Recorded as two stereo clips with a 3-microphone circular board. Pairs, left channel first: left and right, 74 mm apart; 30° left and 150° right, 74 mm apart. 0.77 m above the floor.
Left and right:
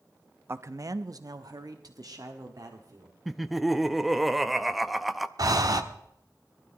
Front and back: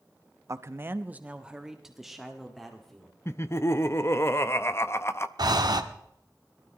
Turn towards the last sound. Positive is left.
turn(degrees=-125)